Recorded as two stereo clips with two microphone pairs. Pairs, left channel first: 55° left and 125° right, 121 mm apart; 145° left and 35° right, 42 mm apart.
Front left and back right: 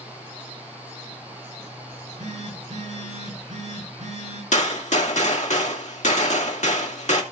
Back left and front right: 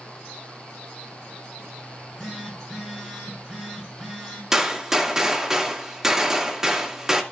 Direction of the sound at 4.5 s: 45° left.